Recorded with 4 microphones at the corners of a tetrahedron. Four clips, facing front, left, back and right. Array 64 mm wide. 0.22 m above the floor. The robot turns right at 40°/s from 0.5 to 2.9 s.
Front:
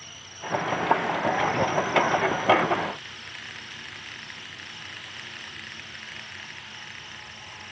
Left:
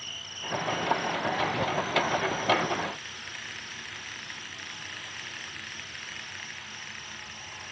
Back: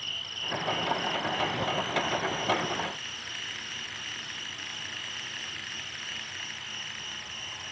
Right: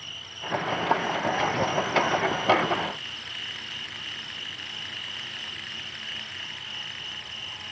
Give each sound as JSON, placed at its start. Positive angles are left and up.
{"t": 0.0, "sound": "an insect", "azimuth_deg": 160}